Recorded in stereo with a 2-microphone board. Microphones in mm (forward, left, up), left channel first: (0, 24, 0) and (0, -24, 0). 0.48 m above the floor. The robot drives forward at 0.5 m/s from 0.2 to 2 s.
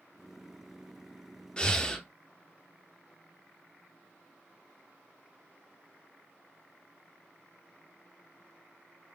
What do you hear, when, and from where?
1.6 s breathing: 20° left (ahead or behind), 0.6 m; by 2.0 s 15° left (ahead or behind), 0.7 m